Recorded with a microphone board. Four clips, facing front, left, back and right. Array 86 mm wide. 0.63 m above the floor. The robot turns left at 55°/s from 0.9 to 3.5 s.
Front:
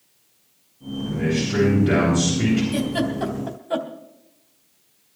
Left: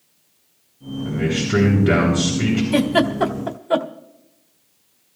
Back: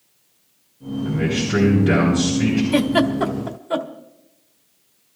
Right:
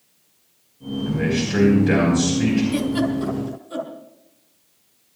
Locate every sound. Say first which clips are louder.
1.1 s a man speaking: left 1 dB, back 1 dB; 135° left, 8.5 m; by 2.6 s 50° left, 8.5 m
2.7 s a giggle: left 4 dB, back 6 dB; 140° left, 1.5 m; by 3.9 s 95° left, 1.5 m